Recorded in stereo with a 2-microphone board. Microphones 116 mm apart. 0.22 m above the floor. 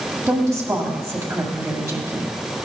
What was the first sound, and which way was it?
A woman speaking, 25° right (ahead or behind).